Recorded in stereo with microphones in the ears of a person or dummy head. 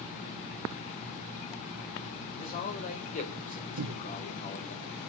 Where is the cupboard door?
65° right (ahead or behind), 0.7 m.